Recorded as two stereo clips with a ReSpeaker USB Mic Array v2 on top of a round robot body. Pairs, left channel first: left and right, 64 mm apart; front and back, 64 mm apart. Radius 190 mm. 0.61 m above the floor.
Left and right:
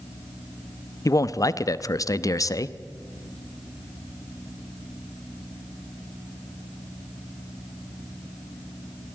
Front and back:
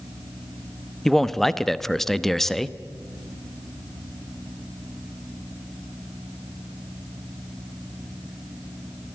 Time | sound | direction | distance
1.1 | a man speaking | 85° left | 1.0 m